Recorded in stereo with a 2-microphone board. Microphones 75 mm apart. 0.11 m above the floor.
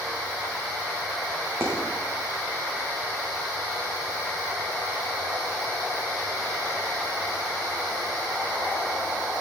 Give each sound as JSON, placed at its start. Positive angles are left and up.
{"t": 1.6, "sound": "a dropped coin", "side_deg": -40, "distance_m": 6.0}